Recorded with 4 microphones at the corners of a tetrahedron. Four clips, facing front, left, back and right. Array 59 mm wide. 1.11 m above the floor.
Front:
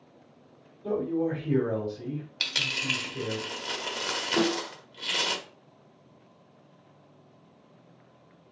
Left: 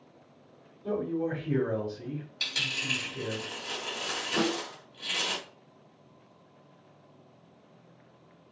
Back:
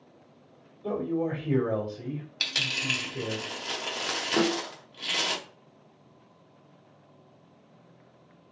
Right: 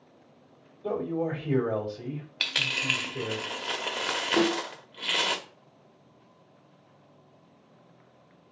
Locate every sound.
0.8 s a man speaking: 125° right, 3 m
2.4 s a dropped coin: 95° right, 0.8 m
4.4 s a snare drum: 135° right, 1.8 m